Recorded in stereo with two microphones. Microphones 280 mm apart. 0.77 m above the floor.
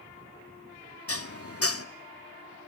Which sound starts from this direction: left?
Dishes clattering, at 1.1 s.